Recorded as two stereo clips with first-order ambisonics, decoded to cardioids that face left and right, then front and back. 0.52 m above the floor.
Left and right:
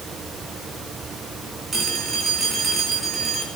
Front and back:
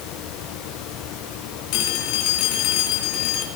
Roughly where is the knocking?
No knocking in this recording.